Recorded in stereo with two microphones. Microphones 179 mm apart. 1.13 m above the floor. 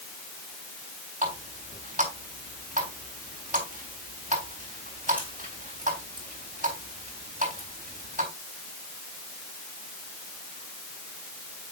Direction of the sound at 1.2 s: 45° right (ahead or behind).